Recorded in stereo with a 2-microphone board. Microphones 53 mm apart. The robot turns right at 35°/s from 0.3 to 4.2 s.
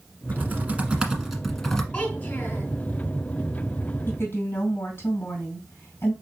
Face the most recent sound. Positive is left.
turn(degrees=50)  # may be behind; listen again after turning